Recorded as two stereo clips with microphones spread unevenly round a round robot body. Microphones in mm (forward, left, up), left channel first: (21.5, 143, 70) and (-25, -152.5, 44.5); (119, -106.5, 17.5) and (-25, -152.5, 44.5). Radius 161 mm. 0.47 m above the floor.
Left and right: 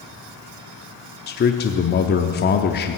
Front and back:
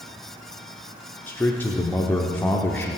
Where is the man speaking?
60° left, 0.7 m.